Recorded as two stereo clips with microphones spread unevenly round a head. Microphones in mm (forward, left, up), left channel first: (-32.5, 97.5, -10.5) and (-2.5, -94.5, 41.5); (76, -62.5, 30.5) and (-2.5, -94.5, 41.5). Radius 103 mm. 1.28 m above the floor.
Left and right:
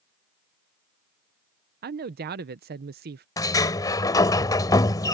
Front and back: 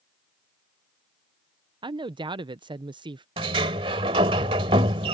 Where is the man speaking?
125° right.